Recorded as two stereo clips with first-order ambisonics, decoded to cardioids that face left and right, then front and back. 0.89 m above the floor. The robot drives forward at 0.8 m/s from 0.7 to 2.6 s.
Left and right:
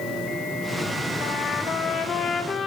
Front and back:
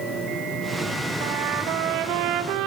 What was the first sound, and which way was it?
A trumpet, 145° left.